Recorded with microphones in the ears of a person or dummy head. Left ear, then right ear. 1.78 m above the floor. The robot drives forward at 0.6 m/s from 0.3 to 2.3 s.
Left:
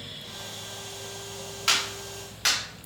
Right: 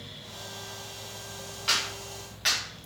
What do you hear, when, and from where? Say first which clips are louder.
1.7 s a clap: left 2 dB; 30° left (ahead or behind), 1.2 m; by 2.6 s 25° left (ahead or behind), 1.5 m